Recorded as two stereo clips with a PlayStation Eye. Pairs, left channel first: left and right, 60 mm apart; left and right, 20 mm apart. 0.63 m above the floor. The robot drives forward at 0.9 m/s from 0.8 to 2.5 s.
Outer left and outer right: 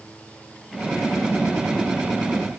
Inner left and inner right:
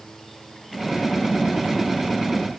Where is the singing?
I don't hear singing.